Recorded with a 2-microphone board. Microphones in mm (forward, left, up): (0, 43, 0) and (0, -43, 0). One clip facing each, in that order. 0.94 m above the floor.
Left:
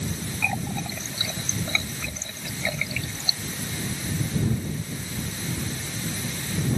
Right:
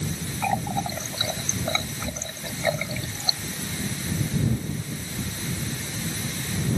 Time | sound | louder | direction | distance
0.4 | a running tap | right 5 dB | 30° right (ahead or behind) | ?